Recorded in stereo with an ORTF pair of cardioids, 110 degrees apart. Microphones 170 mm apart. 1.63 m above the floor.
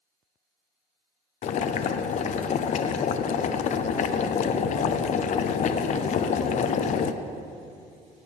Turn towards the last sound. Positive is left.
turn(degrees=50)